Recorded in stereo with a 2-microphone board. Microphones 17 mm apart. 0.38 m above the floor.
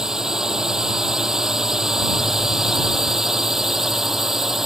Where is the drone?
30° right (ahead or behind); by 4.7 s 20° right (ahead or behind).